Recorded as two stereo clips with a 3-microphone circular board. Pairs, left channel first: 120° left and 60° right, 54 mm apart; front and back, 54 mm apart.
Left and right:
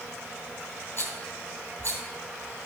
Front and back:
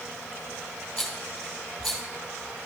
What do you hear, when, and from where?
1.0 s a rattle: 85° left, 2.5 m